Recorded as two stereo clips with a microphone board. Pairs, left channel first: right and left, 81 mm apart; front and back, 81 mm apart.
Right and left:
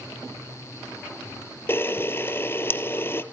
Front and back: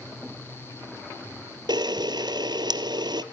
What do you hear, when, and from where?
1.7 s a camera shutter: 150° right, 1.3 m